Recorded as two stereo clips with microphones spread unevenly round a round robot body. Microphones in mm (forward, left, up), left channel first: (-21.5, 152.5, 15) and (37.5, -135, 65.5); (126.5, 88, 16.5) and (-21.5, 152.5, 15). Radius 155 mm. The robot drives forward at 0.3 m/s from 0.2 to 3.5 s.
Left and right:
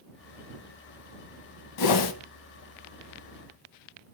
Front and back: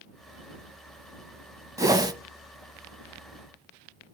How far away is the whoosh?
About 1.5 m.